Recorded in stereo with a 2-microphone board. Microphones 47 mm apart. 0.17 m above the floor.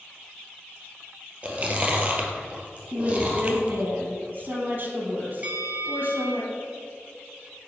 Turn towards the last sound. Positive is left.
turn(degrees=-30)  # may be behind; listen again after turning